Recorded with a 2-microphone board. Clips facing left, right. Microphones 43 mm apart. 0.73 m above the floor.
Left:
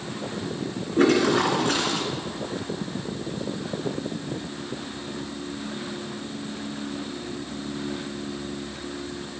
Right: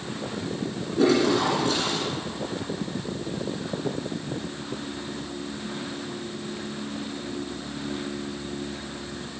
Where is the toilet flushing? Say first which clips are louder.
Left 1 dB; 55° left (ahead or behind), 2.5 m.